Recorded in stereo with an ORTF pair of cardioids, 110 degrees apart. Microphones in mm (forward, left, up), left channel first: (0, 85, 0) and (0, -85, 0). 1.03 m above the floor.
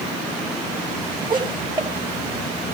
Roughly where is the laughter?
Ahead right.